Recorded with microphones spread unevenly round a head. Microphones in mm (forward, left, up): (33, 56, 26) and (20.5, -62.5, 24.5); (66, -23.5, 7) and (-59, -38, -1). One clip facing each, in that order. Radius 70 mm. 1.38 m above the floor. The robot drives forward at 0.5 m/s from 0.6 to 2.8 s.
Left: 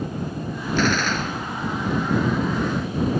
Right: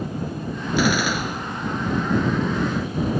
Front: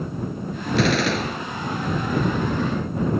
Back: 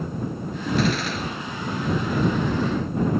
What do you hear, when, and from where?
0.8 s a gunshot: 15° right